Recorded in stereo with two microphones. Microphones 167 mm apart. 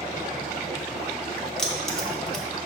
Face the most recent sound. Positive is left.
turn(degrees=5)  # may be behind; listen again after turning